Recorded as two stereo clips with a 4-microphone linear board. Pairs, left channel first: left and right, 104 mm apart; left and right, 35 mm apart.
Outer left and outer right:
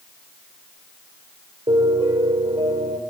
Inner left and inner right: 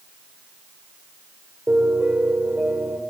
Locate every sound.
1.7 s a piano: 80° right, 3 m